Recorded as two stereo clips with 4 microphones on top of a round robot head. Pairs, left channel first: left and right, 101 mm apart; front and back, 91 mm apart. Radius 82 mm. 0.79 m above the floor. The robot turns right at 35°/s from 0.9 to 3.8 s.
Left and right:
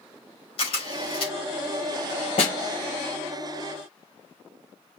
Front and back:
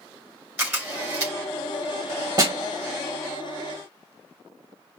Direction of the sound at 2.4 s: 135° left.